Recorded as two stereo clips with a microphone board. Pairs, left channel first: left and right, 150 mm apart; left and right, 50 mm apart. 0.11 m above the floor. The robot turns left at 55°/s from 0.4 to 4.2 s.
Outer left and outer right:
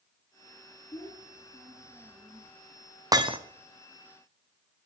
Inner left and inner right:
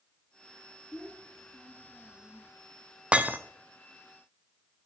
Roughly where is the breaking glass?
Right.